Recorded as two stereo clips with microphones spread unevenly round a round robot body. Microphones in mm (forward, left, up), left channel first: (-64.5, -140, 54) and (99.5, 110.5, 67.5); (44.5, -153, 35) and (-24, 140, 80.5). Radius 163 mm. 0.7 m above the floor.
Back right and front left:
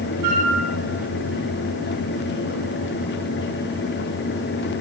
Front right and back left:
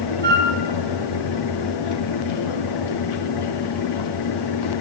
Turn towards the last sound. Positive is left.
turn(degrees=45)